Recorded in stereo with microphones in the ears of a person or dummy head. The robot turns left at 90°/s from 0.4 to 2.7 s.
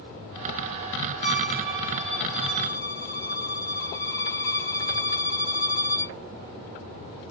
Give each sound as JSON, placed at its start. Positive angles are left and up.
{"t": 1.2, "sound": "a violin", "azimuth_deg": -70, "distance_m": 0.8}